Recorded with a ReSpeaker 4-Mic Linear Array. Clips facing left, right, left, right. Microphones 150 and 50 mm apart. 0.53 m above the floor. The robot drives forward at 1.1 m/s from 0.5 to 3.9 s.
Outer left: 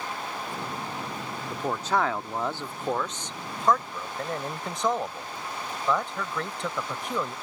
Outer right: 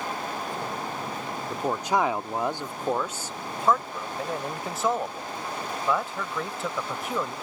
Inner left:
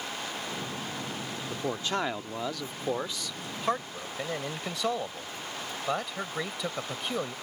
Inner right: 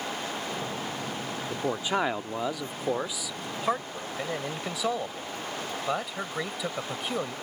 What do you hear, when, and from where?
1.5 s a man speaking: 10° right (ahead or behind); by 7.3 s 5° right (ahead or behind)